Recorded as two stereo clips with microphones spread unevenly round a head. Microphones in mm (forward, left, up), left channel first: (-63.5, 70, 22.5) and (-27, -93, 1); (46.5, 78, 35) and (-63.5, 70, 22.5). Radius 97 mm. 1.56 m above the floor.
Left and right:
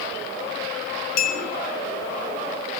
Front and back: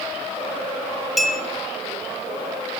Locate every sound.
1.2 s a clink: 90° left, 1.1 m